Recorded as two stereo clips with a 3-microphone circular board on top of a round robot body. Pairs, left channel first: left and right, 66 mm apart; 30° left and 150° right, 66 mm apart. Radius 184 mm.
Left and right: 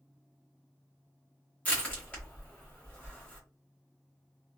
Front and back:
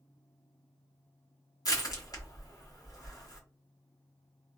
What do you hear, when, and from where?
1.6 s crushing: 25° left, 1.5 m